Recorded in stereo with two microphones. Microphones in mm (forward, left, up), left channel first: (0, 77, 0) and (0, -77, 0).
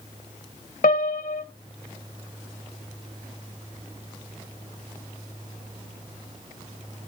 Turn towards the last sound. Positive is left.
turn(degrees=75)  # may be behind; listen again after turning